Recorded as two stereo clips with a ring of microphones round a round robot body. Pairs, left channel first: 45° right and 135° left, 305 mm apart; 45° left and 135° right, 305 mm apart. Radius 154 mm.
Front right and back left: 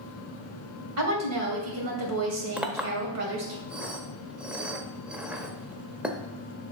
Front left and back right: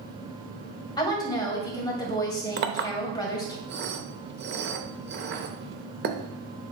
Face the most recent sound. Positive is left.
turn(degrees=-140)